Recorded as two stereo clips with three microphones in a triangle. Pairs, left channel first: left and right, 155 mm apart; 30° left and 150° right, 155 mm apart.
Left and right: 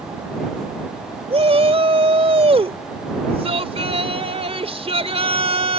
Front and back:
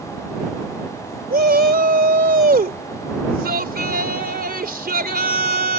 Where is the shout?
140° right.